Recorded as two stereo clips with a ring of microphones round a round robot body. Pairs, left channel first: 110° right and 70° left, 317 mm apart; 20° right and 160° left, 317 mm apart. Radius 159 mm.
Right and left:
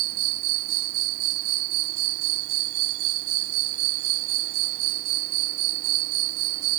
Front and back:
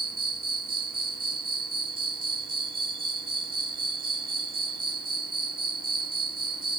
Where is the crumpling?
No crumpling in this recording.